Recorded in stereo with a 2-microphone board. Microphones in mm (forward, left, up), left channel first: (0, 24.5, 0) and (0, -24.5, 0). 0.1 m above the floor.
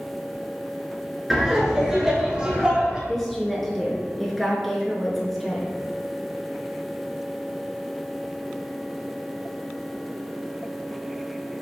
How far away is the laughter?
About 1.2 m.